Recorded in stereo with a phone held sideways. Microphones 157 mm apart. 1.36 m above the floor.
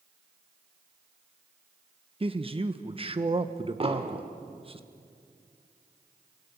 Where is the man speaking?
35° right (ahead or behind), 1.2 m.